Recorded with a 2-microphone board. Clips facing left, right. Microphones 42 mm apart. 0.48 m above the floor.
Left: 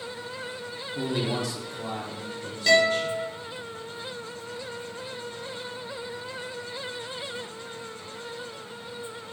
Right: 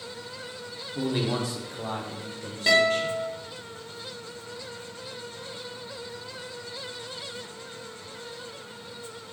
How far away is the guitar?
About 0.9 m.